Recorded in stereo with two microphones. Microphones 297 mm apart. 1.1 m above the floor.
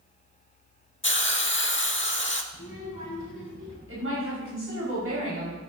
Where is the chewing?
No chewing in this recording.